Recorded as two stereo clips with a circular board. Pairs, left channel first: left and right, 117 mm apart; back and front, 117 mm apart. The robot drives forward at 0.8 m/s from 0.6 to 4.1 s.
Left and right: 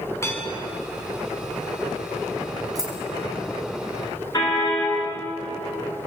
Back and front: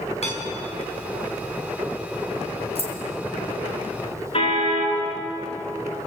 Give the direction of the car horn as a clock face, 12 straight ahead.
7 o'clock.